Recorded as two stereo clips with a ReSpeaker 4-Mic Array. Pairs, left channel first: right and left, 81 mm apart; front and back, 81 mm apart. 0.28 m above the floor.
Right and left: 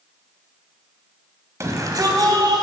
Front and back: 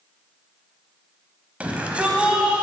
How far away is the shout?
About 1.5 m.